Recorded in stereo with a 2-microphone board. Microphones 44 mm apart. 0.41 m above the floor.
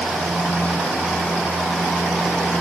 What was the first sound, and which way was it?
Only background noise.